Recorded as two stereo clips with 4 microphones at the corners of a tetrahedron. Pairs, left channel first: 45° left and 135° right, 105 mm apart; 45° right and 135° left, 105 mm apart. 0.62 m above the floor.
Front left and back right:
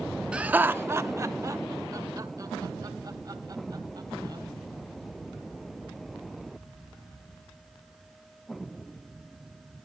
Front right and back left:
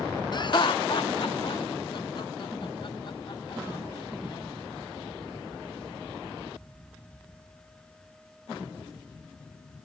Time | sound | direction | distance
0.3 | laughter | 60° right | 0.8 m